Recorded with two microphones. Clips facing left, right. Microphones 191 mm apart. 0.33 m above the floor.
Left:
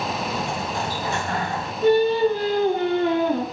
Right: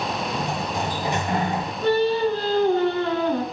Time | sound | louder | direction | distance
0.3 | a sliding door | right 1 dB | 20° right (ahead or behind) | 1.2 m
1.8 | singing | left 3 dB | 15° left (ahead or behind) | 3 m